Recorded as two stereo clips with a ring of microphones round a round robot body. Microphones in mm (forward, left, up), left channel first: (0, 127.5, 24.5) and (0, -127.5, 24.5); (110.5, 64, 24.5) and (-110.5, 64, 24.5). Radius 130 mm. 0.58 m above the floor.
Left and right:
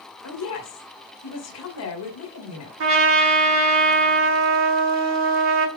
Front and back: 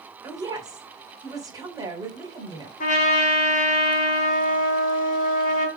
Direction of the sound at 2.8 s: 55° right.